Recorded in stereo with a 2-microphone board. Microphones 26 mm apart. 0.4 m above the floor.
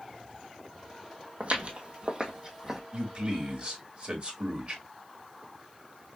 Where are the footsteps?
55° right (ahead or behind), 1.1 m; by 2.8 s 15° right (ahead or behind), 1.0 m.